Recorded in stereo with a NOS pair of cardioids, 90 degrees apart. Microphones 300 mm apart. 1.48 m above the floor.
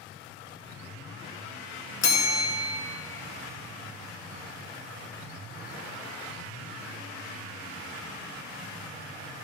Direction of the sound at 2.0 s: 60° left.